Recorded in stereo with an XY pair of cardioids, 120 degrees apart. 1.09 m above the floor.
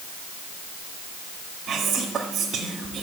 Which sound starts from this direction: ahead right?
Whispering, at 1.7 s.